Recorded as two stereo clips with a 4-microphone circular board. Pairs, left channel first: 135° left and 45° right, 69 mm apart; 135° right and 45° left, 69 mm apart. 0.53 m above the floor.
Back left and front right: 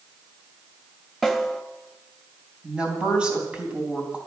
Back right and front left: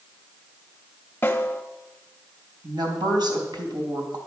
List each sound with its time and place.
1.2 s a snare drum: 130° right, 1.2 m
2.6 s a woman speaking: 30° left, 3.5 m